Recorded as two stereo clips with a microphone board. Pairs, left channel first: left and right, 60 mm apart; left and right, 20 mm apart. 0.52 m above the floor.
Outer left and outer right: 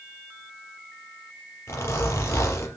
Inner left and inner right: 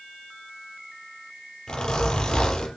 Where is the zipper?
45° left (ahead or behind), 4.5 m.